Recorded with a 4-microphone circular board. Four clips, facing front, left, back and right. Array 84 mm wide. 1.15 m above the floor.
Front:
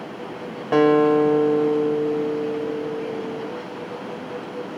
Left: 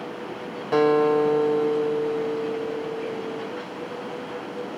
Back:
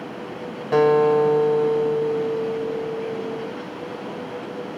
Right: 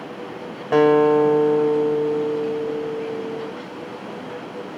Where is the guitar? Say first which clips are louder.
Right 4 dB, even; 50° right, 0.9 m.